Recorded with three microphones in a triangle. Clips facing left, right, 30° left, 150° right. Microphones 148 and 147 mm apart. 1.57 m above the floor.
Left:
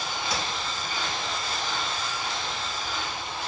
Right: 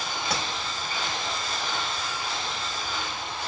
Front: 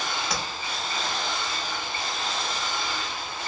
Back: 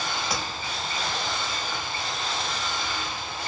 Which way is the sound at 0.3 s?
65° right.